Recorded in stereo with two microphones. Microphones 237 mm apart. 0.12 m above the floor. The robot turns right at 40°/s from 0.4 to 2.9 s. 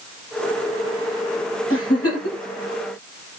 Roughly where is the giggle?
Left.